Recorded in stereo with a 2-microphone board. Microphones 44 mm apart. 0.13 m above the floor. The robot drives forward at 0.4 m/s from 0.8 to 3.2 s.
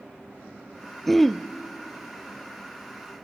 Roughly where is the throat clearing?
Centre.